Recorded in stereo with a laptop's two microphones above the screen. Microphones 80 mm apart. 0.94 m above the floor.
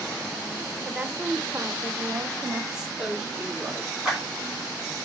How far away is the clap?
About 2.5 m.